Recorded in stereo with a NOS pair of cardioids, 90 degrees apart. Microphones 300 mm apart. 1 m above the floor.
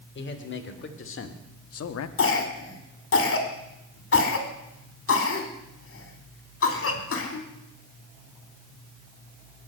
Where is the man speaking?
40° left, 3.5 m; by 2.1 s 60° left, 1.5 m.